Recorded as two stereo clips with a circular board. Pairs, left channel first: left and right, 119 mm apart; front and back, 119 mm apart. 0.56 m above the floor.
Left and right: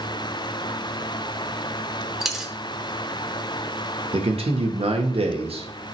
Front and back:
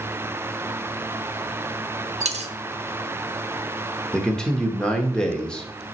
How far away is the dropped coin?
About 0.8 m.